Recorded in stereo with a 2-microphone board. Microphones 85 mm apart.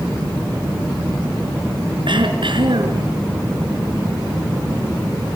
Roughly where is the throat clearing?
Right.